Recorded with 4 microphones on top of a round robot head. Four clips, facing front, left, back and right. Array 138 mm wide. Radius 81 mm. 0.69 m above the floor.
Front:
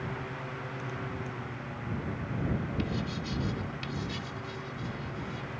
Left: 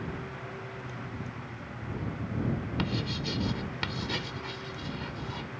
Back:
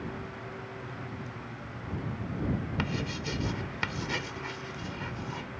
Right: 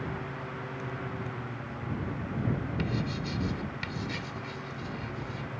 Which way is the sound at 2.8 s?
150° left.